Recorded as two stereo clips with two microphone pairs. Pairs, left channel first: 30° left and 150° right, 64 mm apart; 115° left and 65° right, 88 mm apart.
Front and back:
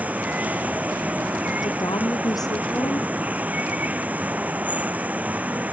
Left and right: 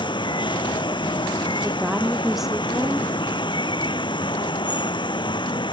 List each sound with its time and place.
0.0 s running water: 140° left
1.6 s a woman speaking: 20° left